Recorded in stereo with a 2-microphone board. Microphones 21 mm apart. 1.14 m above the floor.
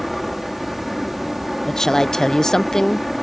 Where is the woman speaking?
25° left (ahead or behind).